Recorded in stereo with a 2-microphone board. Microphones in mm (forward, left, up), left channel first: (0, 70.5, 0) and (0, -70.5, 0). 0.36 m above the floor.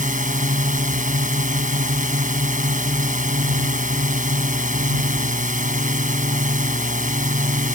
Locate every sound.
0.0 s a drone: 65° right (ahead or behind)